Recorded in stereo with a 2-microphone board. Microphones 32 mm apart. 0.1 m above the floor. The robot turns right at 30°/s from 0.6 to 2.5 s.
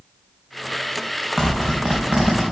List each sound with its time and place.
1.4 s a zipper: 15° right (ahead or behind), 2.5 m; by 2.4 s 45° right (ahead or behind), 2.5 m